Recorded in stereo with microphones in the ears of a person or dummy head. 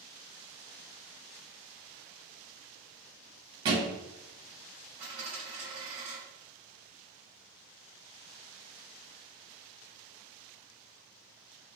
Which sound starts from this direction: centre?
A dropped coin, at 5.0 s.